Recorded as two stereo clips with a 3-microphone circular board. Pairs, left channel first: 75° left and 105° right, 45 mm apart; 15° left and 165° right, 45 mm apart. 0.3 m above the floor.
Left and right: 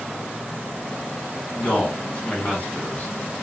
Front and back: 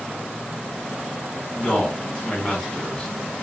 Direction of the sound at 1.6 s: 75° left.